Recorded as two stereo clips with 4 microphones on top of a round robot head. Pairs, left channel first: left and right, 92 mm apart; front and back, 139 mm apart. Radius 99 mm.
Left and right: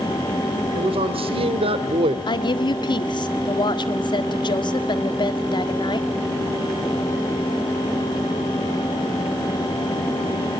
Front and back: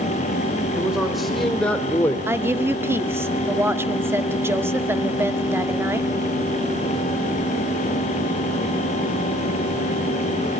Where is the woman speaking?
110° left, 1.8 m.